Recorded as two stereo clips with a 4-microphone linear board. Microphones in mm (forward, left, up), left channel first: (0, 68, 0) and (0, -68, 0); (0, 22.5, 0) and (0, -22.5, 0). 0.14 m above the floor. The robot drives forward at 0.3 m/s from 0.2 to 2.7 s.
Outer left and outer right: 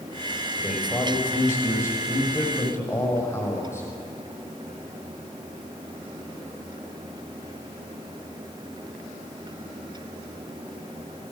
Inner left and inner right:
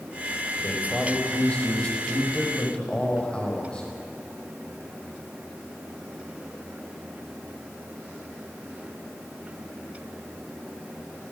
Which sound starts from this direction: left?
A man speaking, at 0.6 s.